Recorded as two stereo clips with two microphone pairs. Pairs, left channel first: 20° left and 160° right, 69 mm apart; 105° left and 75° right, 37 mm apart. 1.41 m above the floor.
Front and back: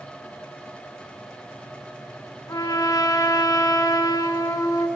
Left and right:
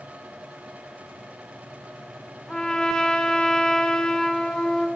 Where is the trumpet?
40° left, 1.5 m.